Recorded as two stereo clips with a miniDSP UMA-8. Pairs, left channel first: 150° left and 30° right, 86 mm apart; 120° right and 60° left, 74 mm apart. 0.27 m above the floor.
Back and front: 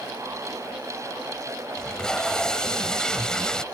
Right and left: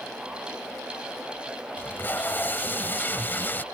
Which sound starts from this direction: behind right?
Tape being pulled, at 1.8 s.